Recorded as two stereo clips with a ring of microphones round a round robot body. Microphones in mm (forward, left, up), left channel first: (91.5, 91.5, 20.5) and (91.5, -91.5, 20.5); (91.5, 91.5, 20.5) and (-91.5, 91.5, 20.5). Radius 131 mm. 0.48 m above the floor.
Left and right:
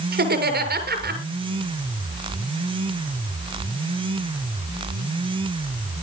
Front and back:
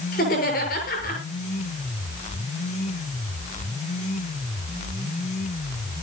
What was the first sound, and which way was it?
Laughter, 60° right.